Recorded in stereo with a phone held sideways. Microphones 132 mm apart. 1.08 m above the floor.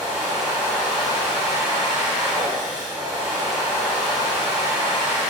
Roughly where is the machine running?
Right.